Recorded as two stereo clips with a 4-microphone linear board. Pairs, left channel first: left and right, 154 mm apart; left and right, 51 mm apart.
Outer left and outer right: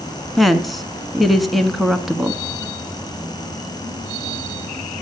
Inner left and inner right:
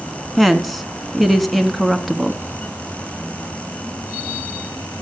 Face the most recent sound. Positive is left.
turn(degrees=0)  # may be behind; listen again after turning